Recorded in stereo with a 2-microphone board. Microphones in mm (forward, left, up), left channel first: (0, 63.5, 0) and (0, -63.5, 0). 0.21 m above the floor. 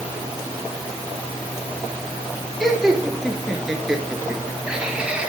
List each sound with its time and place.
2.6 s laughter: centre (ahead or behind), 3.5 m; by 5.3 s 10° right (ahead or behind), 1.7 m